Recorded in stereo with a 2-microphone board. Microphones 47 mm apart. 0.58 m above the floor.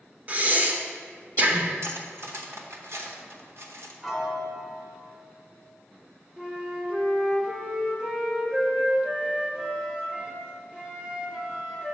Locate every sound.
0.3 s breathing: 35° right (ahead or behind), 0.7 m
1.8 s cutlery clinking: 60° right (ahead or behind), 0.8 m
4.0 s a piano: 5° right (ahead or behind), 1.1 m
6.4 s a flute: 15° right (ahead or behind), 1.1 m